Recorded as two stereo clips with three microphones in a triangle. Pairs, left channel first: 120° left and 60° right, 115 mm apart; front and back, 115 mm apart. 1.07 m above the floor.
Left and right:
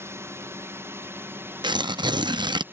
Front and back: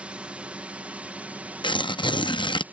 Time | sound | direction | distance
0.0 | a drone | 110° right | ?
1.6 | tearing paper | 25° right | ?